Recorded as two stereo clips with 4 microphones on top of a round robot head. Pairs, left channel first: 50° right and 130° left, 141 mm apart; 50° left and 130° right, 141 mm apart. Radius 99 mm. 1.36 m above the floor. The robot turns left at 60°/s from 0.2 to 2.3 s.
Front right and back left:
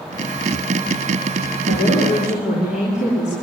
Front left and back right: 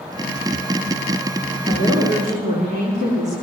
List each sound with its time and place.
1.7 s a woman speaking: 50° right, 4.5 m; by 3.3 s 90° right, 4.5 m